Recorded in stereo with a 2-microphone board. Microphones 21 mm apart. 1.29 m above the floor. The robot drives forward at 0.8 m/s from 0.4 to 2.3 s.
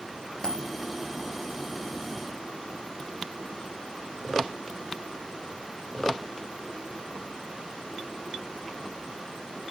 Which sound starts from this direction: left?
A dropped coin, at 0.4 s.